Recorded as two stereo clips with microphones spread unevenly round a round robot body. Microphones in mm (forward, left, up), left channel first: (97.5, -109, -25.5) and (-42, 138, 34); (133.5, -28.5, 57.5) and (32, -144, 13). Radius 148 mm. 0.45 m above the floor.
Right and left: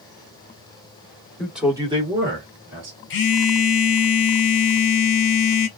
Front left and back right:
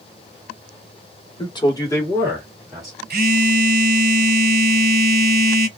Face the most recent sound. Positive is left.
turn(degrees=-115)